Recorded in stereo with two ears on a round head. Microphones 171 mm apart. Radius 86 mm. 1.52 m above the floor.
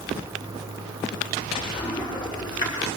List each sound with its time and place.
0.2 s a toilet flushing: 25° left (ahead or behind), 6.5 m